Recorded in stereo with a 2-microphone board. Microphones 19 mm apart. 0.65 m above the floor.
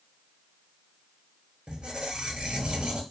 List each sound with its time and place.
1.7 s a squeak: 55° right (ahead or behind), 0.9 m